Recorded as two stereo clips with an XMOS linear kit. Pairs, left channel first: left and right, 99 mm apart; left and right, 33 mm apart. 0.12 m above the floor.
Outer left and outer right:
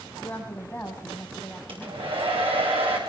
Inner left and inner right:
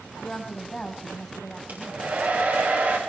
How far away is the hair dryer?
About 10 m.